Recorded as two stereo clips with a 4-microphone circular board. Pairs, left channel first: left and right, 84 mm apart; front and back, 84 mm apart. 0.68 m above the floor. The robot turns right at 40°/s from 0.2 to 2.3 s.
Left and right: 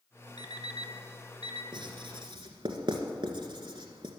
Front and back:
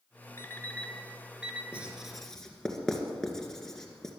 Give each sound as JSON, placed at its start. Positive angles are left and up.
{"t": 0.4, "sound": "an alarm clock", "azimuth_deg": 60, "distance_m": 1.1}
{"t": 1.7, "sound": "writing", "azimuth_deg": -105, "distance_m": 1.9}